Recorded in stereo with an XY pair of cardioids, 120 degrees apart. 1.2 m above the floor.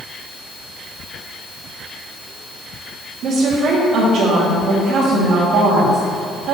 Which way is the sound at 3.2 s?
60° right.